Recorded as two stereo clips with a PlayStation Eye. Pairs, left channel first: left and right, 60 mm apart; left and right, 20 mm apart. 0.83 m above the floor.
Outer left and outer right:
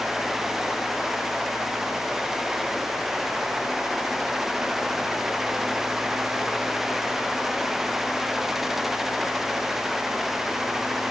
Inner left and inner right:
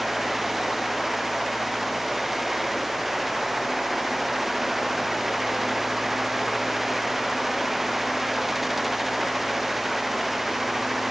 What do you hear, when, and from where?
Only background noise.